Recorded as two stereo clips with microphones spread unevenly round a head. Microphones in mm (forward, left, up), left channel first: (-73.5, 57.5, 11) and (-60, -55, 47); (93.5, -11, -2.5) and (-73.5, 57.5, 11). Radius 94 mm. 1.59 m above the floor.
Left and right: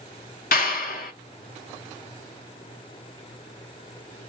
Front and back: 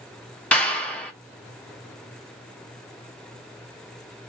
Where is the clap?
65° left, 0.9 m.